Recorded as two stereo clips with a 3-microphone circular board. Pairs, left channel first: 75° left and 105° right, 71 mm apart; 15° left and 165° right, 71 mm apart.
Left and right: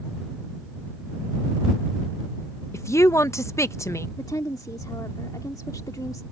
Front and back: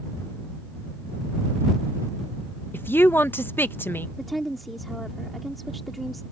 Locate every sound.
2.7 s a woman speaking: 60° left
4.2 s a woman speaking: 105° left